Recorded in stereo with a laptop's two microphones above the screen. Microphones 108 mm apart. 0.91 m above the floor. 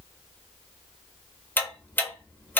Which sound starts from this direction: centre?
Ticking, at 1.6 s.